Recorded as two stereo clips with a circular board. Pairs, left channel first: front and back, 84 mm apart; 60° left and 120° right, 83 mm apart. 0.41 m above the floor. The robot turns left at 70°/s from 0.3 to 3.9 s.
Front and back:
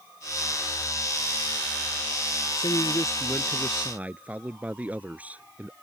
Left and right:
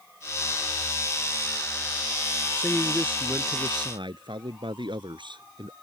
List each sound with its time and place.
2.6 s a man speaking: 10° right; by 5.7 s 105° right